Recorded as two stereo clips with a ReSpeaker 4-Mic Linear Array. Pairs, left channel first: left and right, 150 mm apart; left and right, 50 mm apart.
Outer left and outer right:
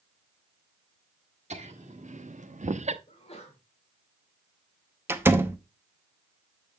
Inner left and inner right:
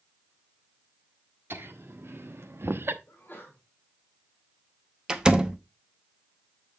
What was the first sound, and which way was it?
Laughter, 50° right (ahead or behind).